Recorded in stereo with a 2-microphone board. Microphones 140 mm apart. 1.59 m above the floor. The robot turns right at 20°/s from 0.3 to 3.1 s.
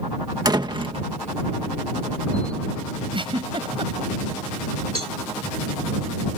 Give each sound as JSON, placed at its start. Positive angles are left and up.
{"t": 0.5, "sound": "a door slam", "side_deg": -30}
{"t": 3.1, "sound": "a giggle", "side_deg": -40}
{"t": 5.0, "sound": "a cowbell", "side_deg": -40}